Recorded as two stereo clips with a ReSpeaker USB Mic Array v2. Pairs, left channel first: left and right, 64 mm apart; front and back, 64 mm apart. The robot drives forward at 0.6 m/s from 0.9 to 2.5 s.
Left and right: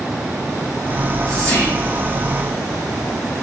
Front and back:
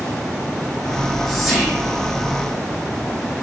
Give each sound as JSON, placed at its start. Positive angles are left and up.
{"t": 0.9, "sound": "whispering", "azimuth_deg": 75, "distance_m": 1.4}